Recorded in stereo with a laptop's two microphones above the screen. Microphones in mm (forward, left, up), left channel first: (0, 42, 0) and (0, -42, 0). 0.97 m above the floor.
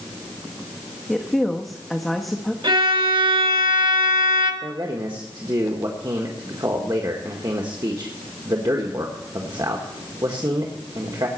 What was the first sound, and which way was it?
A woman speaking, centre (ahead or behind).